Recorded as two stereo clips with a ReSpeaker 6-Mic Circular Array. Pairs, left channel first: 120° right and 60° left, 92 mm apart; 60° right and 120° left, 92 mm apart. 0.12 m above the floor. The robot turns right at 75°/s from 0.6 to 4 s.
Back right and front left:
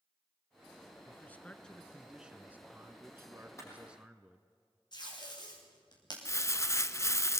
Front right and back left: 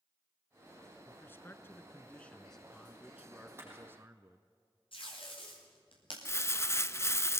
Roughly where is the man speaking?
Right.